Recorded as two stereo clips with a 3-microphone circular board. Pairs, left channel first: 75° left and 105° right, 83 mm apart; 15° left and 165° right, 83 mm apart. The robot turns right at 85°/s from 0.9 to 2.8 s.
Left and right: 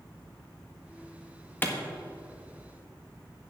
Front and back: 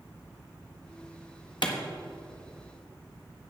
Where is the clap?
10° left, 1.3 m; by 1.7 s 20° left, 1.3 m.